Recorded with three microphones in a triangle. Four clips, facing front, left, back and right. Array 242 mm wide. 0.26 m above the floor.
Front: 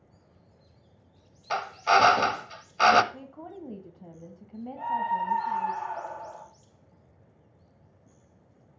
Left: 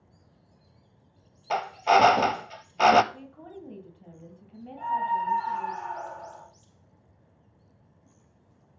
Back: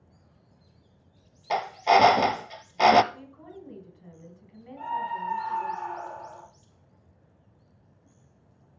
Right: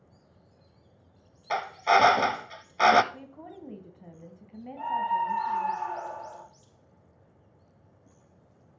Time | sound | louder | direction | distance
1.5 | a drill | left 2 dB, back 2 dB | 145° left | 0.5 m
3.1 | a woman speaking | even, front 3 dB | 20° right | 2 m
4.8 | a scream | left 1 dB, front 3 dB | 55° right | 6 m